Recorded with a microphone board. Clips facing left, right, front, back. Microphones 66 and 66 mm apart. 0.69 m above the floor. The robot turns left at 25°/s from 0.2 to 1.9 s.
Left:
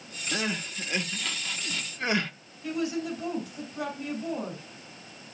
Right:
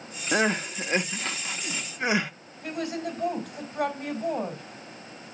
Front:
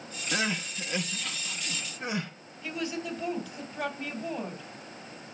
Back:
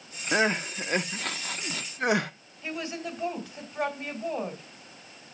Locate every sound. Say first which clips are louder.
0.3 s crying: right 7 dB, back 6 dB; 120° right, 0.7 m; by 2.3 s 160° right, 0.7 m
2.6 s a woman speaking: left 1 dB, even; 125° right, 3 m